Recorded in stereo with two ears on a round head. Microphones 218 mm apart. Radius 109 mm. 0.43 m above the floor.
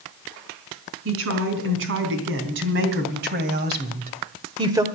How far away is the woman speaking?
About 4.5 m.